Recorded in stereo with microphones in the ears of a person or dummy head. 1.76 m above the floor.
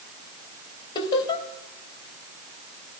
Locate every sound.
0.9 s laughter: 30° left (ahead or behind), 2.5 m